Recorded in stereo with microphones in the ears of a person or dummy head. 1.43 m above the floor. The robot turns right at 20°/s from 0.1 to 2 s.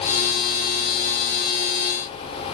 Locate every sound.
Only background noise.